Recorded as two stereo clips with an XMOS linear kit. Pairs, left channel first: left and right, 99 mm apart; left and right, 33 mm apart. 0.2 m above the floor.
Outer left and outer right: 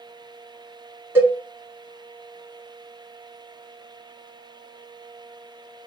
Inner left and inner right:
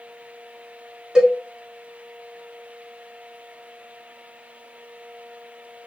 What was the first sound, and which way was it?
A cowbell, 25° right (ahead or behind).